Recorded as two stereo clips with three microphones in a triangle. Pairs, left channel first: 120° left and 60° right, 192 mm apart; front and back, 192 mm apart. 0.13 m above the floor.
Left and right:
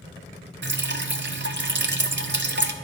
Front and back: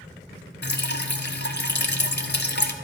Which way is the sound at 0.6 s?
35° right.